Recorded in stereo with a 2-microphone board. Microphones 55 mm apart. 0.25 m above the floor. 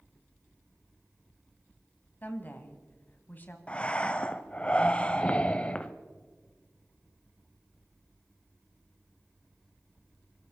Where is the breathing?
25° left (ahead or behind), 0.7 m.